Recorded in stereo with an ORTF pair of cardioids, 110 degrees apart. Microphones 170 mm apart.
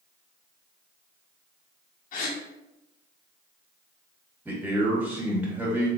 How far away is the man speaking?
About 1.8 m.